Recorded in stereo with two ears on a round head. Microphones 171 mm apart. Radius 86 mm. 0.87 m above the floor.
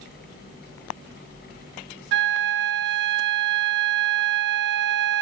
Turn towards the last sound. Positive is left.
turn(degrees=-65)  # may be behind; listen again after turning